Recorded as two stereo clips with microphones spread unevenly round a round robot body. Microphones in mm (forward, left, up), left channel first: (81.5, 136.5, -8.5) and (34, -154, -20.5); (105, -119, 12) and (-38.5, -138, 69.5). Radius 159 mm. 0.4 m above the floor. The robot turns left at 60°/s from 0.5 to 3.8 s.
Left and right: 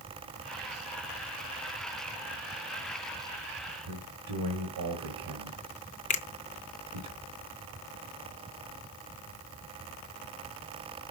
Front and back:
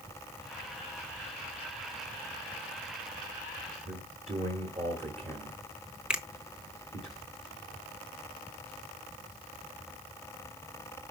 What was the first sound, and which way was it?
A man speaking, 115° right.